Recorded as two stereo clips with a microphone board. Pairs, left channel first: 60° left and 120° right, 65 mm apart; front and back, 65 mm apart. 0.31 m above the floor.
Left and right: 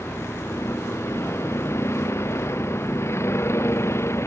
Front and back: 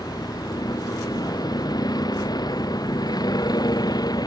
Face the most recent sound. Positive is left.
turn(degrees=10)